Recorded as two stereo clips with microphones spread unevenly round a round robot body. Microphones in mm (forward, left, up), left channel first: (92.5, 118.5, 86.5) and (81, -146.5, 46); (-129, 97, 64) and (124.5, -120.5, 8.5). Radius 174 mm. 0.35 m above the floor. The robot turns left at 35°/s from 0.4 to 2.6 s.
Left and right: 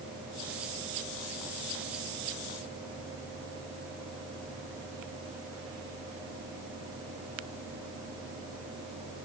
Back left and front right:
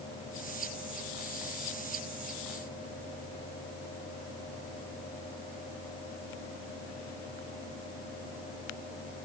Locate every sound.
Only background noise.